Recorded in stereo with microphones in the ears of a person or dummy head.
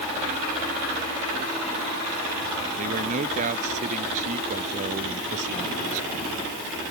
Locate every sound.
2.8 s a man speaking: 45° right (ahead or behind)